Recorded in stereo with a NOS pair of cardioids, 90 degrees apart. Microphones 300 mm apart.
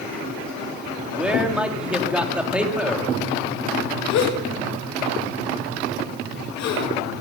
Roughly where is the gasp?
Ahead left.